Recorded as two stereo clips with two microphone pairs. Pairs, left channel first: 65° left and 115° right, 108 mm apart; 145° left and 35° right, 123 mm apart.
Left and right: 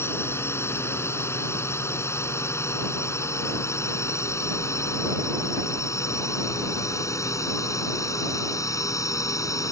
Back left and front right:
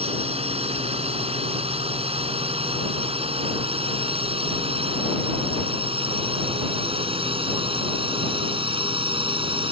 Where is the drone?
Straight ahead; by 9.7 s 10° left.